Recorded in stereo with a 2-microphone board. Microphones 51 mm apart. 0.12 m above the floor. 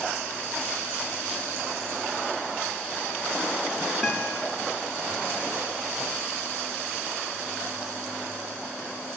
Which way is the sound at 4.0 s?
5° right (ahead or behind).